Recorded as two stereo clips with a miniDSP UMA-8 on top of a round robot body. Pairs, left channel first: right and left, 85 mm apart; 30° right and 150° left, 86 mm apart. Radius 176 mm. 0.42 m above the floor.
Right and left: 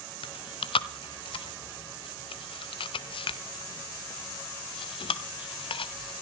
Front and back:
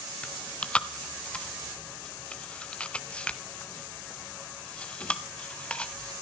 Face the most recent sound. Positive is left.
turn(degrees=-105)